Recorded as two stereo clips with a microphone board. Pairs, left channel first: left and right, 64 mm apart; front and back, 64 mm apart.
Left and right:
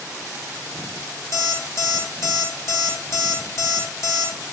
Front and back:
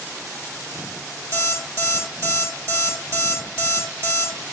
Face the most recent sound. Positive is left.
turn(degrees=130)